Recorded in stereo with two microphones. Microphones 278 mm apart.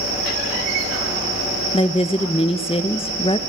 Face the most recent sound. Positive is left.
turn(degrees=20)  # may be behind; listen again after turning